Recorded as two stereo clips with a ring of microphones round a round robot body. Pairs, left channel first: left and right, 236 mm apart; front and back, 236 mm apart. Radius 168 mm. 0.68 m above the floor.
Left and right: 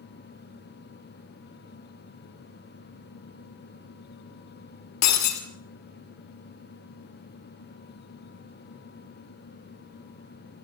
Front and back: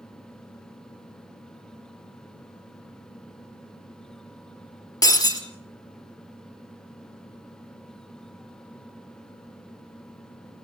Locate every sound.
5.0 s breaking glass: 75° left, 4.5 m